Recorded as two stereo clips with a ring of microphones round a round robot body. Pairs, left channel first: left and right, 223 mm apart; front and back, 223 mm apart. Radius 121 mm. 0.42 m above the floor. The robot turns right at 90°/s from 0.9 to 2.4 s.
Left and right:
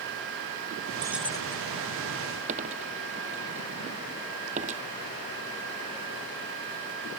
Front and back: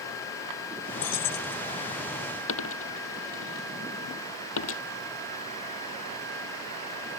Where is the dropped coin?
25° right.